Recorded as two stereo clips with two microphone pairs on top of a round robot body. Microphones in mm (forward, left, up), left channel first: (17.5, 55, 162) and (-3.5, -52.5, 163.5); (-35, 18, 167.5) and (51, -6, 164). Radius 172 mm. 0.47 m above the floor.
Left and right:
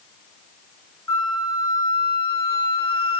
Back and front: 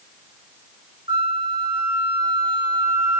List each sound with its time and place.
1.1 s a flute: 10° left, 1.3 m